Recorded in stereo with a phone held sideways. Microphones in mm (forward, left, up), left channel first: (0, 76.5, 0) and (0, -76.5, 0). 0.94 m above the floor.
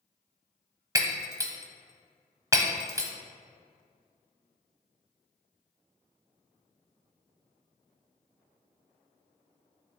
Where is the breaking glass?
20° right (ahead or behind), 0.8 m.